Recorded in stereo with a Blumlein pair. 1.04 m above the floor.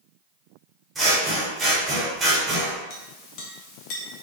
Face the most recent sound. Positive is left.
turn(degrees=35)